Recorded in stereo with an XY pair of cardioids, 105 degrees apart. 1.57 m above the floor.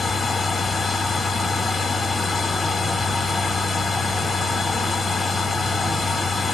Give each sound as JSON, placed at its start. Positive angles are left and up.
{"t": 0.0, "sound": "a machine running", "azimuth_deg": 40, "distance_m": 1.4}